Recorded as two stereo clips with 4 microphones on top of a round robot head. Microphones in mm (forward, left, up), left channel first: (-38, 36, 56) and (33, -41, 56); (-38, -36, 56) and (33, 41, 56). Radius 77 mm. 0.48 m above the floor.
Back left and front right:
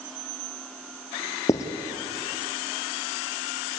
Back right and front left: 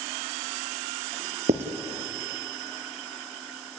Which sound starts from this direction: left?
Writing, at 1.5 s.